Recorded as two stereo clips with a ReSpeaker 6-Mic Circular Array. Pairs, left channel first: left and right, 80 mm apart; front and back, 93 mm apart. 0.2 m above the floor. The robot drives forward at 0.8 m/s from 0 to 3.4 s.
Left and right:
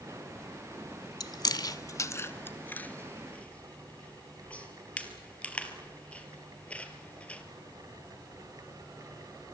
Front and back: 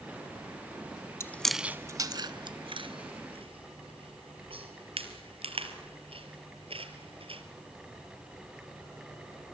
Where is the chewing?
60° left, 0.6 m; by 7.4 s 165° left, 1.6 m.